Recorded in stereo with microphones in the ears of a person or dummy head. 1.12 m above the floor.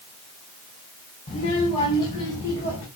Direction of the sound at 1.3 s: 35° left (ahead or behind).